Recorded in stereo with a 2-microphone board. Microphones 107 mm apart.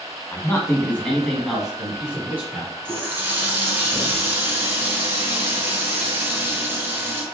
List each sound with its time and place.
0.3 s a man speaking: 30° left (ahead or behind), 1.1 m; by 2.7 s 25° right (ahead or behind), 1.5 m
2.9 s a running tap: 25° right (ahead or behind), 1.4 m